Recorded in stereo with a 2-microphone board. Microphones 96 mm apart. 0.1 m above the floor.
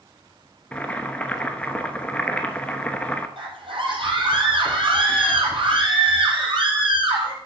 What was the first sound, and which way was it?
Boiling, 15° left (ahead or behind).